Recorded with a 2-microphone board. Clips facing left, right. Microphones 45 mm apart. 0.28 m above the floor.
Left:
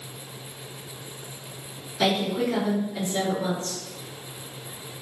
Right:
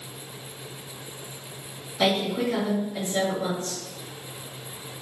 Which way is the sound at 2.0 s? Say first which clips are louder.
Even; 20° right (ahead or behind).